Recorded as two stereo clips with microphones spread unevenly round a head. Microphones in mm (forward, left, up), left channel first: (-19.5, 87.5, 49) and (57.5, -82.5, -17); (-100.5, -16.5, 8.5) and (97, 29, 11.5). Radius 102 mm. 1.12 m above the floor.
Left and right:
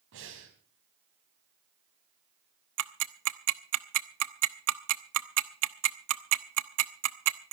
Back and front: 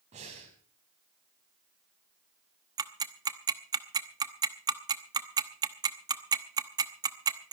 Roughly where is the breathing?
Ahead right.